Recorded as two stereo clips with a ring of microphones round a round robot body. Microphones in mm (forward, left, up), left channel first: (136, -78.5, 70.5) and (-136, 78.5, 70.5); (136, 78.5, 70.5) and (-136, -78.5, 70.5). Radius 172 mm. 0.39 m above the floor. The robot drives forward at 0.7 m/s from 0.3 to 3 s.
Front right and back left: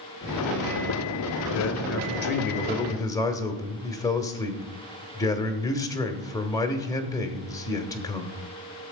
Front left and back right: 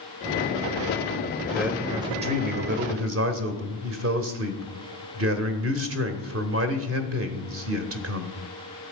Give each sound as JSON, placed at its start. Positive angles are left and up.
{"t": 1.5, "sound": "a man speaking", "azimuth_deg": -60, "distance_m": 1.5}